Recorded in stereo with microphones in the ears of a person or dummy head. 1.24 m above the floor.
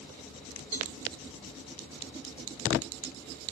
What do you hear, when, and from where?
0.7 s a cowbell: 40° right (ahead or behind), 0.9 m